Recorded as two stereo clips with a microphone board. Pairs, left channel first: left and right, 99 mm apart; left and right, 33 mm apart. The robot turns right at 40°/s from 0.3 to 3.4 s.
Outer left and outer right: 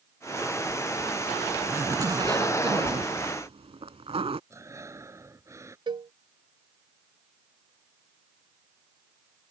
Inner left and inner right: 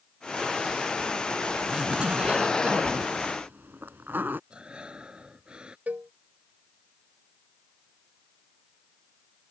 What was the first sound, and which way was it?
A zipper, 160° right.